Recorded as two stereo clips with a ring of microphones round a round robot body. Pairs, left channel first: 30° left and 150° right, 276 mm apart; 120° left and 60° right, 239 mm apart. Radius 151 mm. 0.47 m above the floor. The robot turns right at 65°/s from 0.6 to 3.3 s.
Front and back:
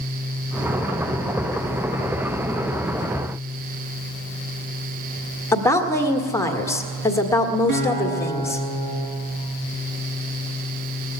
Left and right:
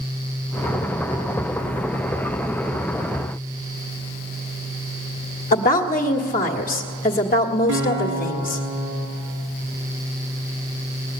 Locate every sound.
5.5 s a woman speaking: 105° left, 1.6 m
7.7 s a guitar: 85° right, 3 m